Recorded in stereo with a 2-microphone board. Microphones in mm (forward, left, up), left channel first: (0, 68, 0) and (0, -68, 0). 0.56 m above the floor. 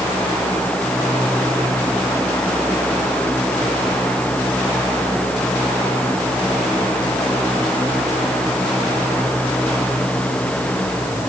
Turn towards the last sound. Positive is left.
No sound to turn to.